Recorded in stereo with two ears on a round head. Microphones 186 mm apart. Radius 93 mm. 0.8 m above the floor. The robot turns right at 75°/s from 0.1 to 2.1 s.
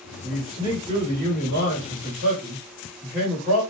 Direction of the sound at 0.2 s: 170° left.